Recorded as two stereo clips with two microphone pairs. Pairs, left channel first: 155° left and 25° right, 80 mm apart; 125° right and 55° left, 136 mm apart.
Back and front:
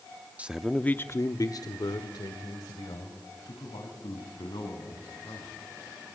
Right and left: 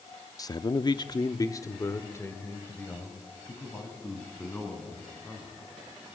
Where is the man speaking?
80° right, 0.8 m; by 5.6 s 160° left, 5.5 m.